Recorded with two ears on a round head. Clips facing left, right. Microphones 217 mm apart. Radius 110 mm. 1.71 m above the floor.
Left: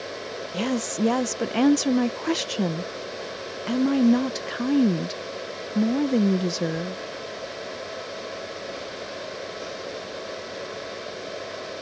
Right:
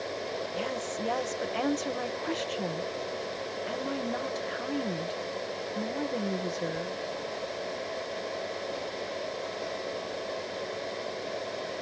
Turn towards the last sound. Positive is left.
turn(degrees=55)  # may be behind; listen again after turning